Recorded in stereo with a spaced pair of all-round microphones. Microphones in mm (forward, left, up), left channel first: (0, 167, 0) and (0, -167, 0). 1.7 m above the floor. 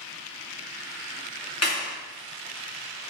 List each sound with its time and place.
1.6 s a clap: 45° left (ahead or behind), 3 m